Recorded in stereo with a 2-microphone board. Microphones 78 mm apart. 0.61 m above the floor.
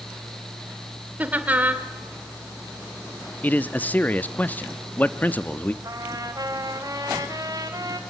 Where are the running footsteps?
No running footsteps in this recording.